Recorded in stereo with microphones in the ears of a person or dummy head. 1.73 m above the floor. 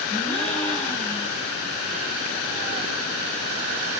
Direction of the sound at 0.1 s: 5° left (ahead or behind).